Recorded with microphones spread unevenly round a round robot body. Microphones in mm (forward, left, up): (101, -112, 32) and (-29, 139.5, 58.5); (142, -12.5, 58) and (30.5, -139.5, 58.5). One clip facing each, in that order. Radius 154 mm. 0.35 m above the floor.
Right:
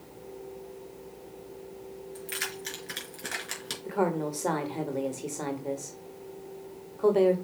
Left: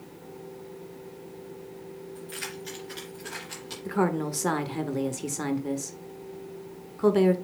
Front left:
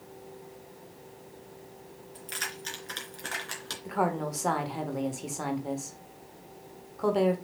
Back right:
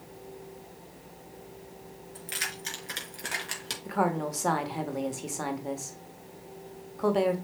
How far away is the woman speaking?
About 1.2 m.